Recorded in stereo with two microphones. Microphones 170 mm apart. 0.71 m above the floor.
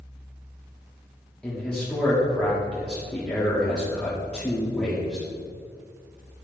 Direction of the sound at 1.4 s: 5° left (ahead or behind).